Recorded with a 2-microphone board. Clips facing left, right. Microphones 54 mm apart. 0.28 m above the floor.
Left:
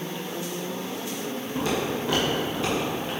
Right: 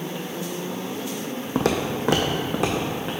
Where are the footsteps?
70° right (ahead or behind), 0.9 m; by 3.1 s 75° right (ahead or behind), 1.7 m.